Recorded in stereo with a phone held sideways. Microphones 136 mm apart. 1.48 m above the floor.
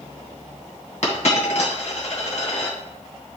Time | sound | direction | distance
1.0 | a dropped coin | 60° left (ahead or behind) | 2.5 m